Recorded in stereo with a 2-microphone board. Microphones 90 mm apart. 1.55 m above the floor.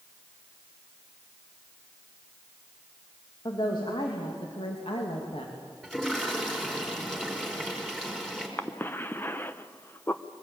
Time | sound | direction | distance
3.5 | a woman speaking | 50° left (ahead or behind) | 3 m
5.8 | a toilet flushing | 5° left (ahead or behind) | 5 m
8.6 | a cough | 20° left (ahead or behind) | 0.8 m